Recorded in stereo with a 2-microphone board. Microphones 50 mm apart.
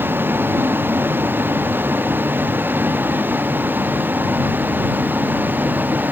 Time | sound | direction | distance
0.0 | a vehicle | 45° right (ahead or behind) | ?